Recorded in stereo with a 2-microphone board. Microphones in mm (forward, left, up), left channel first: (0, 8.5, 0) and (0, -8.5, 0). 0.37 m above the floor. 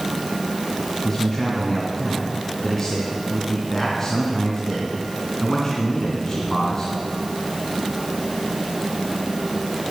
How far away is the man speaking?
About 3 m.